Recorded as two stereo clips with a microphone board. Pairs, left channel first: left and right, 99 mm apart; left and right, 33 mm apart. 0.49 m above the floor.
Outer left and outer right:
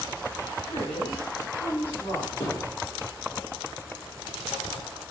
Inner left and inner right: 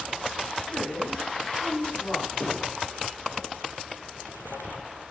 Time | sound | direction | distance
0.7 | a woman speaking | 70° left (ahead or behind) | 3 m
2.4 | a thud | 60° left (ahead or behind) | 3.5 m